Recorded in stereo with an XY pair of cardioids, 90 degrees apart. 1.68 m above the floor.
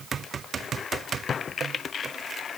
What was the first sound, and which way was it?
Only background noise.